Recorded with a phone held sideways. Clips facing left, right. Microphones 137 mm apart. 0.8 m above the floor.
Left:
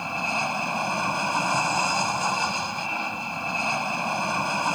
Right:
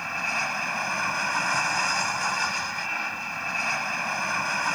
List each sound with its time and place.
0.0 s an aircraft: 20° left (ahead or behind)